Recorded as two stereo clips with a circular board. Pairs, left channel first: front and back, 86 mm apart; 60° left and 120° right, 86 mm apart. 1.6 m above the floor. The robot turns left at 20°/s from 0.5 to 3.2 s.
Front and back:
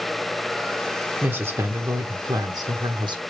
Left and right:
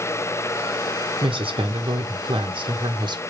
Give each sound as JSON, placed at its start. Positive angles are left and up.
{"t": 1.2, "sound": "a woman speaking", "azimuth_deg": -115, "distance_m": 1.0}